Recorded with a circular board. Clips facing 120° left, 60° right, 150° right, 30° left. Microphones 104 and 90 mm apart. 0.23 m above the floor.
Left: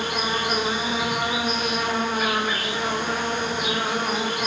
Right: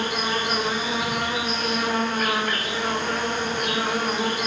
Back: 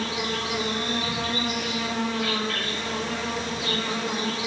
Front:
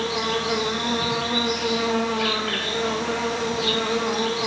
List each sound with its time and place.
0.0 s an insect: 35° left, 4.5 m